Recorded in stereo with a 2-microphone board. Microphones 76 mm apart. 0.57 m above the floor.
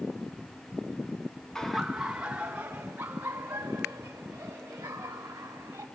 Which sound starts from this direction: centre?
Laughter, at 1.6 s.